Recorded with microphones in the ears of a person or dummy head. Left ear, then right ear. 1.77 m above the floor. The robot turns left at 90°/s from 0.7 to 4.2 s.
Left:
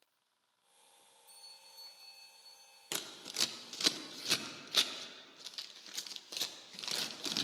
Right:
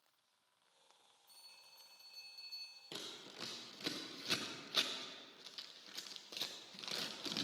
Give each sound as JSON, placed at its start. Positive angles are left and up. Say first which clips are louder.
{"t": 1.3, "sound": "a bell", "louder": "left 5 dB", "azimuth_deg": 80, "distance_m": 4.0}
{"t": 2.9, "sound": "scissors", "louder": "left 11 dB", "side_deg": 50, "distance_m": 0.7}